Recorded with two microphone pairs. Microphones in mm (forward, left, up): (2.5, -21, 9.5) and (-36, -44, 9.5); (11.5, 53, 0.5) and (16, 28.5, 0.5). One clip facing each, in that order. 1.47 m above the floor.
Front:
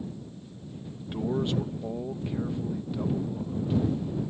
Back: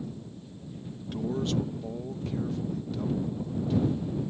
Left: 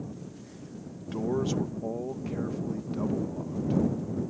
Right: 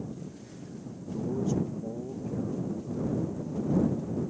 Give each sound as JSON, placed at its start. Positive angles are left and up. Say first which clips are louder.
{"t": 1.0, "sound": "a man speaking", "louder": "front 2 dB, left 3 dB", "azimuth_deg": 105}